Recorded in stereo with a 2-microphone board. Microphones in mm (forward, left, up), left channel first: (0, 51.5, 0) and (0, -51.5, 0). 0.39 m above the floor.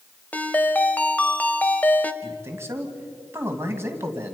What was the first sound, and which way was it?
A ringtone, 15° left (ahead or behind).